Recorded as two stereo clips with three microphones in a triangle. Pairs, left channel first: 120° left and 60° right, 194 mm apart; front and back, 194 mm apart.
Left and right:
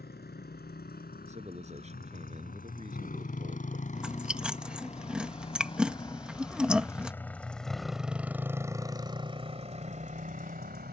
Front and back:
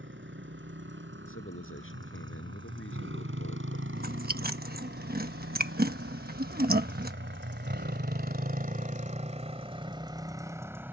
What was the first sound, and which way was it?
A motorcycle, 160° left.